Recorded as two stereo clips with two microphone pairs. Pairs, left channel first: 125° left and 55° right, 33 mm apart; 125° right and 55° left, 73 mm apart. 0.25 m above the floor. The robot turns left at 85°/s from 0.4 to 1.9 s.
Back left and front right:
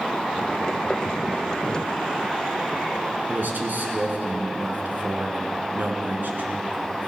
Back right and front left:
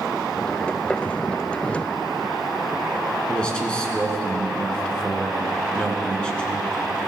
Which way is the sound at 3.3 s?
50° right.